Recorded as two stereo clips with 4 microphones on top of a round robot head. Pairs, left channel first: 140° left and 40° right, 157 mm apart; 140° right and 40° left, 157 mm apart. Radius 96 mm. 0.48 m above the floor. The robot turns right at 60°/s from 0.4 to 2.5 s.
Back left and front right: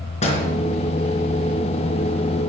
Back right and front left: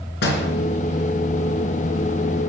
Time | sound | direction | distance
0.2 | a door slam | 165° right | 4 m